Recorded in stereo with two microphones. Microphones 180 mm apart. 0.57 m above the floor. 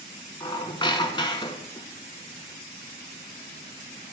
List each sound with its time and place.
0.4 s a squeak: 30° left (ahead or behind), 0.9 m